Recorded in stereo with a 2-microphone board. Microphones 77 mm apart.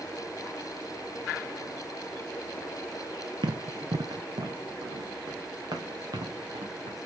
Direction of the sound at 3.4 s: 75° right (ahead or behind).